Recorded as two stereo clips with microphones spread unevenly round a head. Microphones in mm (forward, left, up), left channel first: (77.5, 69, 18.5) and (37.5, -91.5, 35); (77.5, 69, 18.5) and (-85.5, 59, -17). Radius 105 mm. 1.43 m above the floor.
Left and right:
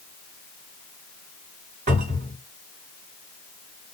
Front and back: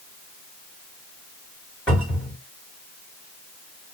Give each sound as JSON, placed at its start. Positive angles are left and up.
{"t": 1.9, "sound": "a cupboard door", "azimuth_deg": -75, "distance_m": 1.9}